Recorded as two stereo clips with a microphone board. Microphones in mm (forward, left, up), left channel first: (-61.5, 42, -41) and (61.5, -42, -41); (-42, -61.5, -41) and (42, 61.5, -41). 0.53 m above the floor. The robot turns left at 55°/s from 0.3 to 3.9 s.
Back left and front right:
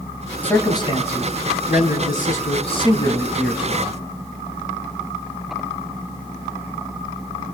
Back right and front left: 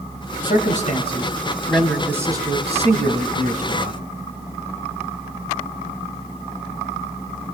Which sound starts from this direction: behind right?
A man speaking, at 0.4 s.